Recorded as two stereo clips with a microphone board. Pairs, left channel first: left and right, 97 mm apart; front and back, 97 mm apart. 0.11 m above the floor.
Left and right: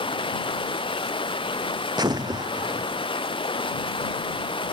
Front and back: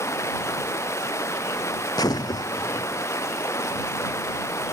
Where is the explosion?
45° right.